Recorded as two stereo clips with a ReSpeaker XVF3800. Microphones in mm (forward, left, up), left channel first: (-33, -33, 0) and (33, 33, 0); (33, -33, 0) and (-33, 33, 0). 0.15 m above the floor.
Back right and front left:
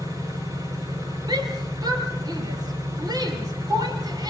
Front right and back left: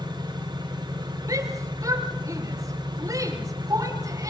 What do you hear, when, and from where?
0.0 s an engine running: 95° left, 7.5 m
1.3 s a shout: 85° left, 5 m